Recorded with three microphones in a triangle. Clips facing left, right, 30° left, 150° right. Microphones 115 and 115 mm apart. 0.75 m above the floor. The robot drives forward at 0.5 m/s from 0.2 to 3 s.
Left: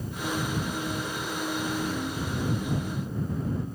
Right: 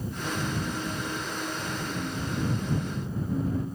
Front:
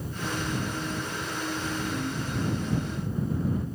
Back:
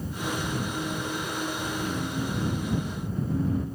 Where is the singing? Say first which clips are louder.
Left 2 dB, back 1 dB; 175° right, 7 m.